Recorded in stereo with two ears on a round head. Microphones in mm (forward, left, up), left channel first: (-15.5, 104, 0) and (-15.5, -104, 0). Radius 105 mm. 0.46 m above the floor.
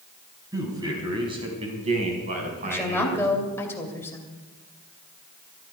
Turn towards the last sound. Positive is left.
turn(degrees=10)  # may be behind; listen again after turning